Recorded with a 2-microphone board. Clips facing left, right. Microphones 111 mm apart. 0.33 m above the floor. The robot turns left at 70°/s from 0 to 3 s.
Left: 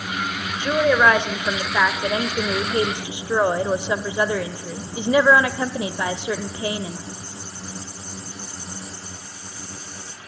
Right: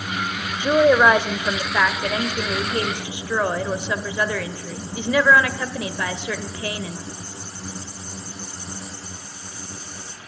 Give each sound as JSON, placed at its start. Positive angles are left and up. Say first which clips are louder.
{"t": 0.6, "sound": "a woman speaking", "louder": "right 3 dB", "side_deg": -20, "distance_m": 0.9}